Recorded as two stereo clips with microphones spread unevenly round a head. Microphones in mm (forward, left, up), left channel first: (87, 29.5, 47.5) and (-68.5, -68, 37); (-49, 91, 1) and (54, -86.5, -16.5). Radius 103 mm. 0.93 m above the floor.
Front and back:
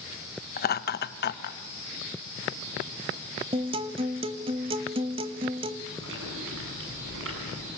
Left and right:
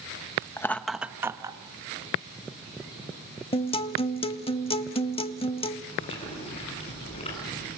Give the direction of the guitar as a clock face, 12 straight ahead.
7 o'clock.